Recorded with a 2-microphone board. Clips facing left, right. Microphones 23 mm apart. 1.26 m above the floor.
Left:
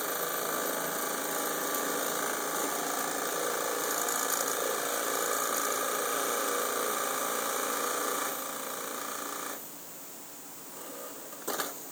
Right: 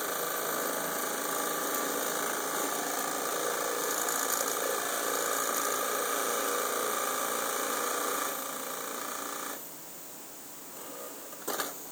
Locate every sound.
Only background noise.